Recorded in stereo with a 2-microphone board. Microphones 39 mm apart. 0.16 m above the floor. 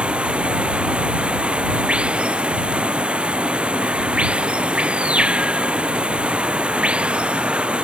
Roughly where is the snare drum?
No snare drum in this recording.